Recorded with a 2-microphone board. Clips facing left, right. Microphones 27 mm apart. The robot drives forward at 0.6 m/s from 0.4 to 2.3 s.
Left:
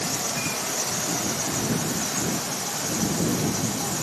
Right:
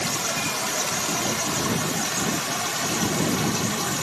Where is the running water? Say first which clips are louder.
Right 2 dB; 70° right (ahead or behind), 2 m; by 4.0 s 60° right (ahead or behind), 2 m.